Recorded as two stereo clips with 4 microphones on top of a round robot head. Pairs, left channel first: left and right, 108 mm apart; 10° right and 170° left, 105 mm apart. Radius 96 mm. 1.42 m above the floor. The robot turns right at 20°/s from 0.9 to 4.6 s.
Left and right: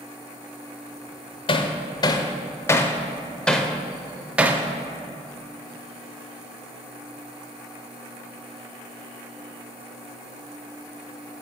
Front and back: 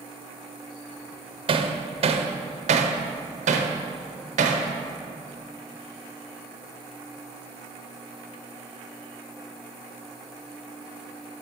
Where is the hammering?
130° left, 0.5 m; by 4.7 s 165° right, 0.5 m.